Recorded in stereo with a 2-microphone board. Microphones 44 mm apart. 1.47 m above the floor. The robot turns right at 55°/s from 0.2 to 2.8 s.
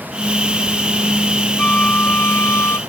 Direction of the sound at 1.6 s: 25° left.